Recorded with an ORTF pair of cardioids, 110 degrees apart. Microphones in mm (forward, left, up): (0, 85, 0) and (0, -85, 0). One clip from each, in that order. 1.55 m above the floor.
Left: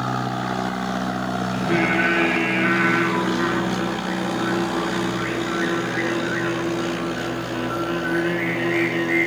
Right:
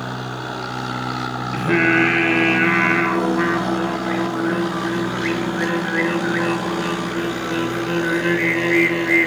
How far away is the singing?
About 1.1 m.